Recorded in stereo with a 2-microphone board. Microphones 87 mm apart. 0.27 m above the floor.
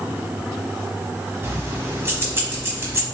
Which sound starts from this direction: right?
Keys jangling, at 1.4 s.